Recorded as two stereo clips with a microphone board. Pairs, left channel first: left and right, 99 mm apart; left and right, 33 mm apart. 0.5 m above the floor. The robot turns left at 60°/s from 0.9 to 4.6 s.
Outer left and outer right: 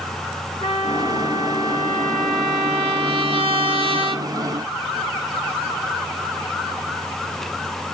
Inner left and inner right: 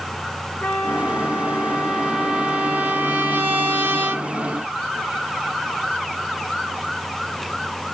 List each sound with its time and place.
0.6 s a trumpet: 80° left, 4 m; by 4.3 s 125° right, 4 m